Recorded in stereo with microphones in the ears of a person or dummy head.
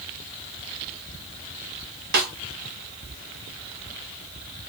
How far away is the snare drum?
About 1.9 m.